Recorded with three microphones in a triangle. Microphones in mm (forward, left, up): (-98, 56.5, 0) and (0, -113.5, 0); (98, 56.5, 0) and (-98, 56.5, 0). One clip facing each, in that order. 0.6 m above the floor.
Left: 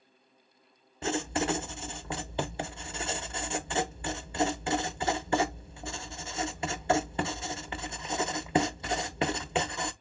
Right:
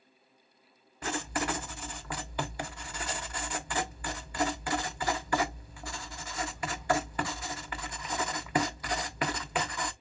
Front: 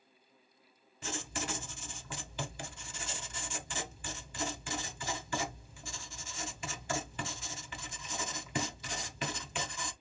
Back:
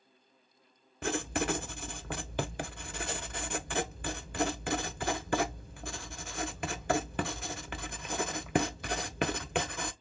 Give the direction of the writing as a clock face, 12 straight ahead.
6 o'clock.